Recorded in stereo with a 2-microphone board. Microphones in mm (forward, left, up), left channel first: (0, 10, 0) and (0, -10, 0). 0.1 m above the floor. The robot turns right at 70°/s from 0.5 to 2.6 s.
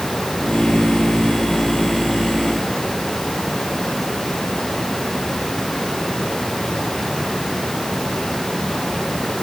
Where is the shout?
No shout in this recording.